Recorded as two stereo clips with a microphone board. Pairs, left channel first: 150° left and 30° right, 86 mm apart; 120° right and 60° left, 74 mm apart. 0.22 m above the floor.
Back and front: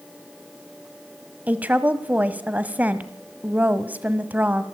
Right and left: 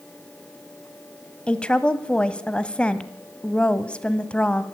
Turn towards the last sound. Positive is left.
turn(degrees=-70)